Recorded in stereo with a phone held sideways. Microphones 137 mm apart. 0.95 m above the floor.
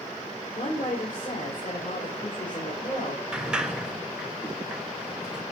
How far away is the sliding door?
About 1.4 m.